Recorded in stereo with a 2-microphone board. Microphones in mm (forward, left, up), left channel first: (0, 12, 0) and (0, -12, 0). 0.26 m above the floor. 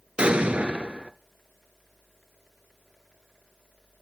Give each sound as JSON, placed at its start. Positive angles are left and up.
{"t": 0.2, "sound": "an explosion", "side_deg": -45, "distance_m": 0.9}